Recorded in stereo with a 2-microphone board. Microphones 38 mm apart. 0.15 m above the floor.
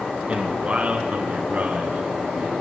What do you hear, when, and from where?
0.3 s a man speaking: 30° right (ahead or behind), 1.8 m; by 2.5 s 55° right (ahead or behind), 2.0 m